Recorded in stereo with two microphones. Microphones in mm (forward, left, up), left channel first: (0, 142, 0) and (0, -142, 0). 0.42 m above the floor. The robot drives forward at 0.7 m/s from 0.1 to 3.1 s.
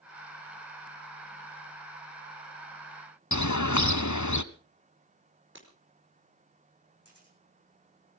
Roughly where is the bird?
Left.